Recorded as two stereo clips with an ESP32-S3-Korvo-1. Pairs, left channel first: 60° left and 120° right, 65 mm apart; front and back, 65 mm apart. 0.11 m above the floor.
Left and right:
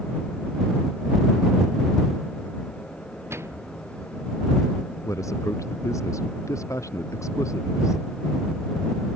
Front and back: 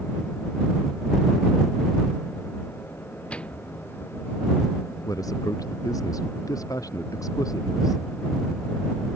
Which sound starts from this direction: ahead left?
A man speaking, at 5.0 s.